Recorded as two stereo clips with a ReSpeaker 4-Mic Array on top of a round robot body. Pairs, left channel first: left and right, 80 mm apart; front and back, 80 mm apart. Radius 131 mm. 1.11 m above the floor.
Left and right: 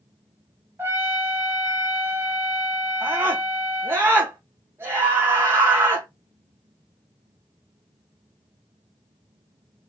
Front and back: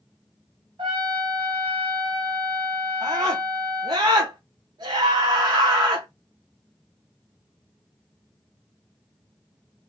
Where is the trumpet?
155° right, 1.1 m.